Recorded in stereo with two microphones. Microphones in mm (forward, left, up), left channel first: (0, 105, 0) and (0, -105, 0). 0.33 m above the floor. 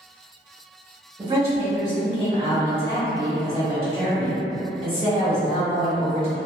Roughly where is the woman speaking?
Right.